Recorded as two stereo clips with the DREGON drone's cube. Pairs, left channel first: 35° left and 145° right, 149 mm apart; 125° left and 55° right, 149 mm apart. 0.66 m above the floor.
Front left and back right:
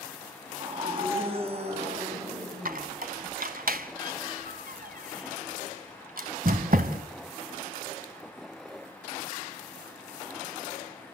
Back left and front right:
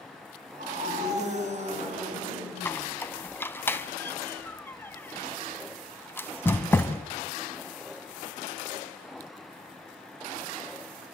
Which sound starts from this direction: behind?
A squeak, at 2.6 s.